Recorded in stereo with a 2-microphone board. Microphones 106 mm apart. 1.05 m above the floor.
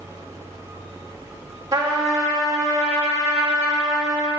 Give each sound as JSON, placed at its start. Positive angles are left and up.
{"t": 1.7, "sound": "a trumpet", "side_deg": -35, "distance_m": 1.9}